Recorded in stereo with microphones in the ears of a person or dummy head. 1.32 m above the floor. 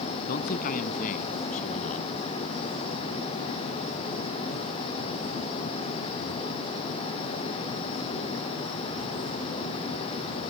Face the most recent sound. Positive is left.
turn(degrees=40)  # may be behind; listen again after turning